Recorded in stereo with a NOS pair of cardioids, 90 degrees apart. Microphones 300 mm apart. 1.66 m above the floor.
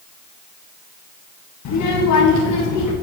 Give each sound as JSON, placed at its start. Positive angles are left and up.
{"t": 1.6, "sound": "a child speaking", "azimuth_deg": 70, "distance_m": 1.9}